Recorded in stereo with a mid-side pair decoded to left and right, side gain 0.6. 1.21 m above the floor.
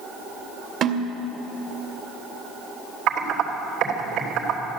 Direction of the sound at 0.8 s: 55° right.